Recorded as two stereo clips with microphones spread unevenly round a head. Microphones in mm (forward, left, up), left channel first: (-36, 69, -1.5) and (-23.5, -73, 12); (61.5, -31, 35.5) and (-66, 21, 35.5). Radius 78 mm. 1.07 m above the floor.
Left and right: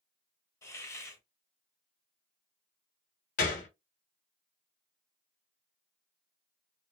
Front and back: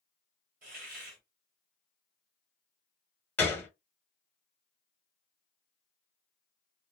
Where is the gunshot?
55° left, 0.8 m.